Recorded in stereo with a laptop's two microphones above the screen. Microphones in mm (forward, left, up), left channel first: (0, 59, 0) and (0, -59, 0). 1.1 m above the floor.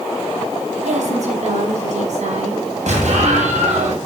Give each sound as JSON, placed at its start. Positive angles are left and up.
{"t": 0.8, "sound": "a woman speaking", "side_deg": -85, "distance_m": 8.0}
{"t": 2.9, "sound": "an explosion", "side_deg": -85, "distance_m": 8.5}